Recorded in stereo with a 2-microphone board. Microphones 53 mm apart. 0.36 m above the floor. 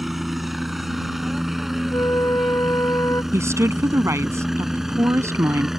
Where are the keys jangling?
No keys jangling in this recording.